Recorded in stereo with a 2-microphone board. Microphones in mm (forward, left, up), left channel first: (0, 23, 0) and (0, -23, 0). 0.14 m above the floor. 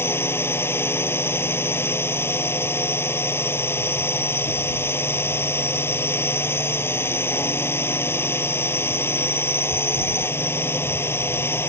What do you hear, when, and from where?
0.0 s a drone: 60° left (ahead or behind)